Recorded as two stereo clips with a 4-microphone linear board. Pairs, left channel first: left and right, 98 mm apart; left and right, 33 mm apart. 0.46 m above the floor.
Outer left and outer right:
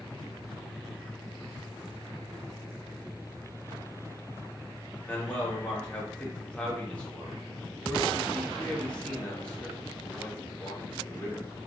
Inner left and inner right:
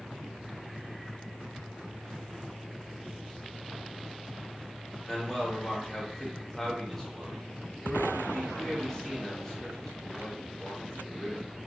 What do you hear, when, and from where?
5.1 s a man speaking: 10° left (ahead or behind), 0.8 m